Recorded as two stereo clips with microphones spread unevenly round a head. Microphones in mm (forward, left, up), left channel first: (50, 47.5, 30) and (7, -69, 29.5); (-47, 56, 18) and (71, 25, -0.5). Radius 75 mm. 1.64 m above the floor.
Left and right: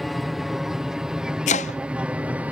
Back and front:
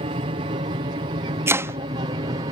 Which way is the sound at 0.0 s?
20° right.